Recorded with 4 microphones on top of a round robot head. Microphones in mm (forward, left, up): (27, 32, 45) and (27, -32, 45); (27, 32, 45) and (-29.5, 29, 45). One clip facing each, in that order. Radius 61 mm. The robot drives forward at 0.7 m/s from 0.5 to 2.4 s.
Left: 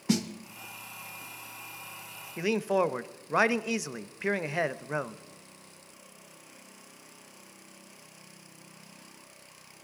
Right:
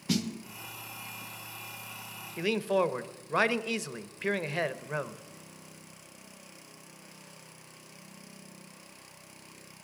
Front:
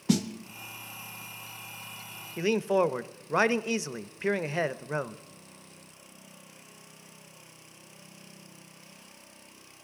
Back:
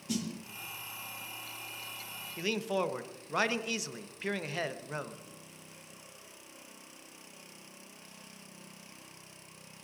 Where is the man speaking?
25° left, 0.5 m; by 5.2 s 30° left, 0.5 m.